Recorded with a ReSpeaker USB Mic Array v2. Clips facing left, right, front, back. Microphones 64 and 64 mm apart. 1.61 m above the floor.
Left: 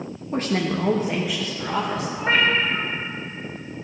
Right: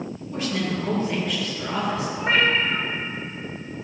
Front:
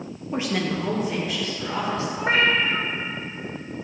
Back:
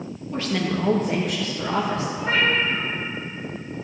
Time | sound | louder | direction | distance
0.3 | a woman speaking | left 3 dB, even | 55° left | 0.7 m
2.2 | a cat meowing | left 1 dB, front 1 dB | straight ahead | 1.0 m